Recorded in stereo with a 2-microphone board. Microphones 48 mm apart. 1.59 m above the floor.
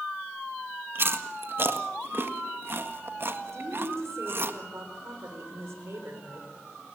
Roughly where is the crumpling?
I don't hear crumpling.